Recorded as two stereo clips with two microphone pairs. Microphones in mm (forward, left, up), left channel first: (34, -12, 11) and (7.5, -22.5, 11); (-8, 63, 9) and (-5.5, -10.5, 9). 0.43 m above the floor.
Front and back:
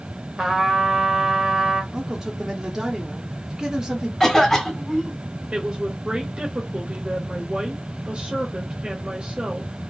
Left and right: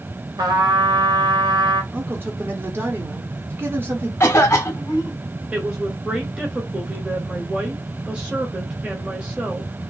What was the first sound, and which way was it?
A trumpet, 85° right.